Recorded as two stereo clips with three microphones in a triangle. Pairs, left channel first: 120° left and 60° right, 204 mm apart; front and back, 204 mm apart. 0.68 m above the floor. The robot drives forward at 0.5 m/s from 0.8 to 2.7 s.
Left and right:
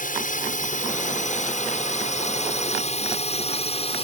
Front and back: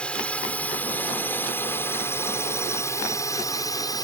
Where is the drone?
85° left; by 4.0 s 65° left.